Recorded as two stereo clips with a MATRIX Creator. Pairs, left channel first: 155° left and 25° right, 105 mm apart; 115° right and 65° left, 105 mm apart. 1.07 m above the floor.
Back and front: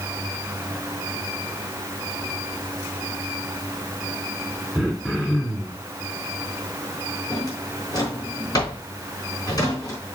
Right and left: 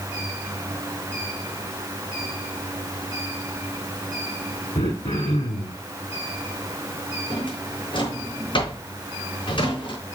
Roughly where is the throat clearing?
Behind right.